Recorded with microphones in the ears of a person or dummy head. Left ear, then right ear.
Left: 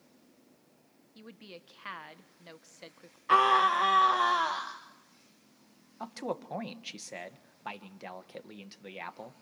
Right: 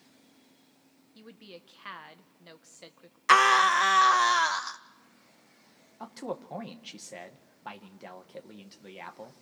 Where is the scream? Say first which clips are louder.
Right 3 dB; 60° right (ahead or behind), 0.6 m.